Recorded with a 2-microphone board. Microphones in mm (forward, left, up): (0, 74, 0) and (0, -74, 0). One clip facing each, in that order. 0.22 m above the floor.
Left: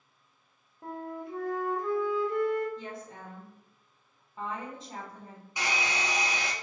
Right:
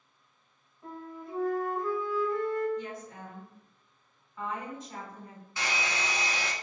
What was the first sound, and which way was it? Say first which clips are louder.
A flute: left 4 dB; 85° left.